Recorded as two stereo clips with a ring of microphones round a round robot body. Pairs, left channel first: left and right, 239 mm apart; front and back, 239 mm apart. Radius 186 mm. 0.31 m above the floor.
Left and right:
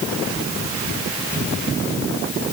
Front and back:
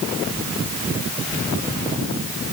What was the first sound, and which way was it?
Only background noise.